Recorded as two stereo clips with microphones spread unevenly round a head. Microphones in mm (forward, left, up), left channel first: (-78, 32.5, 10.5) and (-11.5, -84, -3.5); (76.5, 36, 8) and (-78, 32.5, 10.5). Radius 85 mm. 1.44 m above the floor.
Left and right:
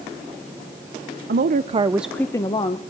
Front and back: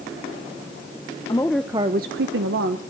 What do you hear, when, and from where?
1.3 s a woman speaking: 70° right, 0.8 m; by 2.8 s 170° left, 1.1 m